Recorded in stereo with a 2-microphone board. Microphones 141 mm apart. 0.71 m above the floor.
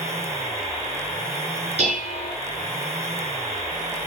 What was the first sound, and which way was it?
Dishes clattering, 45° right (ahead or behind).